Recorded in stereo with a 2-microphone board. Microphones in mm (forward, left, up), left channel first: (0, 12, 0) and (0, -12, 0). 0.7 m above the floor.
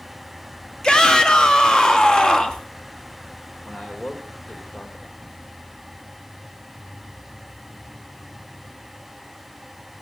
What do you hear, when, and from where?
0.8 s a shout: 35° left (ahead or behind), 1.4 m
3.6 s a man speaking: 75° left (ahead or behind), 2.5 m